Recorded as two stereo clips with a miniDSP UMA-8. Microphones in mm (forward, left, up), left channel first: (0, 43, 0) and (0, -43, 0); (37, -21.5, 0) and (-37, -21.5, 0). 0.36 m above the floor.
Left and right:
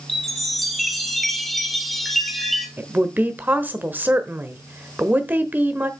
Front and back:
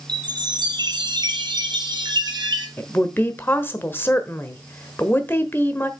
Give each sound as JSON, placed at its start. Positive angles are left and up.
{"t": 0.1, "sound": "a chime", "azimuth_deg": 180, "distance_m": 1.3}
{"t": 2.8, "sound": "a woman speaking", "azimuth_deg": -35, "distance_m": 1.1}